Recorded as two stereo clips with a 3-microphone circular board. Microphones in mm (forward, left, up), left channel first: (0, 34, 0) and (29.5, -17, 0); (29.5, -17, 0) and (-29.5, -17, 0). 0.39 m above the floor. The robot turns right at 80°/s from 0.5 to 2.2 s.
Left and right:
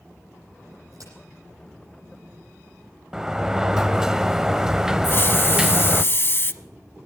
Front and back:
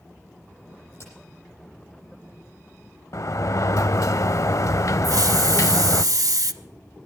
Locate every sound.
0.9 s a crack: 45° right, 9.5 m; by 1.1 s 30° right, 9.5 m
3.1 s a sliding door: 20° left, 0.6 m
5.0 s a hiss: 170° left, 0.7 m